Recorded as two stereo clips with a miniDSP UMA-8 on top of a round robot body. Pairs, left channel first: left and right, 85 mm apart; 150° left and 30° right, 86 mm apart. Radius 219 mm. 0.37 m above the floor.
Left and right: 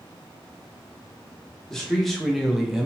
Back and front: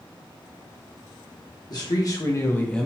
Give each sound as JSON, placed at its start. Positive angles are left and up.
{"t": 1.7, "sound": "a man speaking", "azimuth_deg": 175, "distance_m": 1.2}